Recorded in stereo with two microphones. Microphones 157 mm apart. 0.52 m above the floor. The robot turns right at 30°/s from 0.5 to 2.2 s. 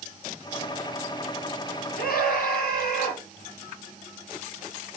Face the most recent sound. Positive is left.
turn(degrees=85)